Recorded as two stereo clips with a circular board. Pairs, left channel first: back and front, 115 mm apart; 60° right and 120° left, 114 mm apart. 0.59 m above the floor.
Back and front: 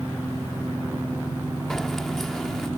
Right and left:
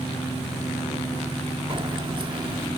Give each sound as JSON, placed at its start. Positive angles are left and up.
{"t": 1.7, "sound": "keys jangling", "azimuth_deg": 95}